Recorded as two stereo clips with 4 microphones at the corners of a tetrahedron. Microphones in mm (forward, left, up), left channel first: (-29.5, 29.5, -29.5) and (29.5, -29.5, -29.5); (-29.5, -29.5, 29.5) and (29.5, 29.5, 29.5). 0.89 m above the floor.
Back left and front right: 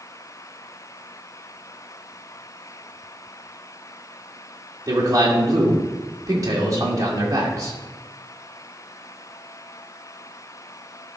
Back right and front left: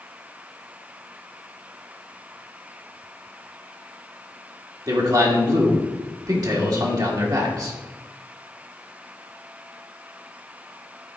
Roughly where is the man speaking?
Ahead.